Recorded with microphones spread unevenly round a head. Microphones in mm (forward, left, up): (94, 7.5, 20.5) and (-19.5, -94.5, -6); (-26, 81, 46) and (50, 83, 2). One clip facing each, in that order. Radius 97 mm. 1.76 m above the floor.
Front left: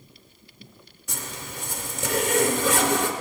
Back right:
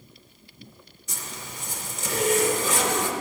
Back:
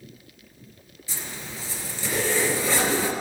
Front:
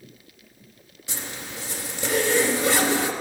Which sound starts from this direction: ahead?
A zipper, at 1.1 s.